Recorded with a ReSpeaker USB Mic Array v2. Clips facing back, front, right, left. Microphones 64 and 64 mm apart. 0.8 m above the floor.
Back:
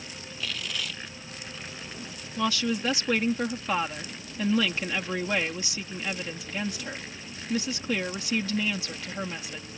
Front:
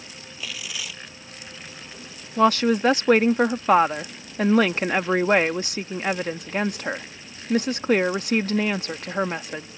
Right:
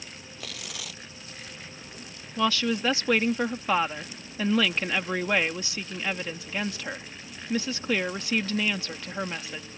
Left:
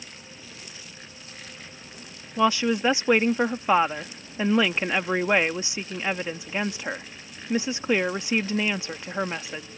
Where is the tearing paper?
85° right.